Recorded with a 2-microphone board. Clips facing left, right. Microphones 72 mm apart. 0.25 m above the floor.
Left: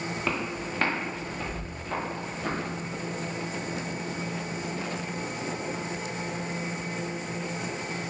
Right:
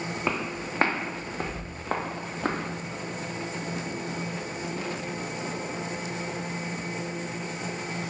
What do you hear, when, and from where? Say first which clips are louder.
0.2 s footsteps: right 1 dB; 15° right (ahead or behind), 0.9 m; by 2.6 s 70° right (ahead or behind), 1.5 m